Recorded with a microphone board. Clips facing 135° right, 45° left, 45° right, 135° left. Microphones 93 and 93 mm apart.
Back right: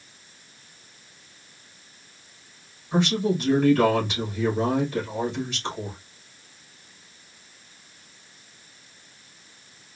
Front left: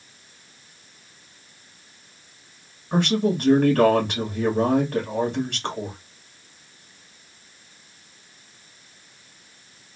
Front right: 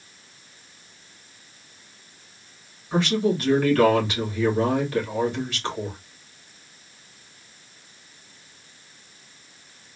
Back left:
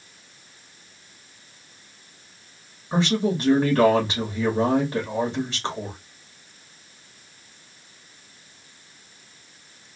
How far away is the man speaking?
About 2 m.